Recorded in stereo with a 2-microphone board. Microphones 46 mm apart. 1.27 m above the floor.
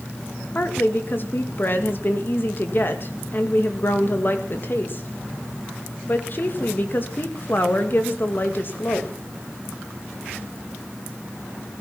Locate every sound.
0.6 s a woman speaking: 45° left (ahead or behind), 2.0 m